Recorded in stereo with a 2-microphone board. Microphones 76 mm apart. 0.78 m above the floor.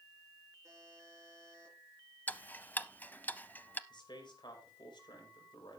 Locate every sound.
0.6 s a buzzer: 40° right (ahead or behind), 5 m
2.3 s ticking: 20° left (ahead or behind), 0.6 m
3.9 s a man speaking: 75° left (ahead or behind), 4 m